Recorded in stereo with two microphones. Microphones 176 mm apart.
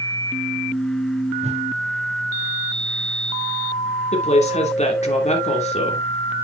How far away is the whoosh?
About 1.2 m.